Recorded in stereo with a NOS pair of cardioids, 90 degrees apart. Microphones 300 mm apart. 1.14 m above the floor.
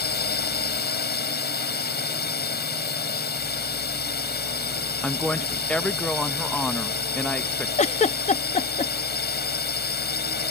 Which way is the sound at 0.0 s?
35° left.